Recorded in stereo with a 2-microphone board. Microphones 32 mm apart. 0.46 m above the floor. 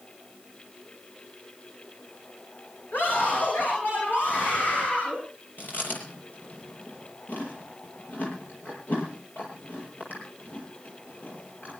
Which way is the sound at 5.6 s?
80° left.